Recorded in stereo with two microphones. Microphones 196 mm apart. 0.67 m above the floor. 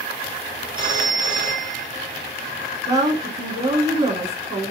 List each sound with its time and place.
0.8 s a phone ringing: 25° right (ahead or behind), 1.2 m
2.9 s a woman speaking: 15° right (ahead or behind), 1.2 m